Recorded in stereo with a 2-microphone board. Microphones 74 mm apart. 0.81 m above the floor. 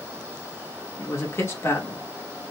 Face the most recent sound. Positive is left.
turn(degrees=35)  # may be behind; listen again after turning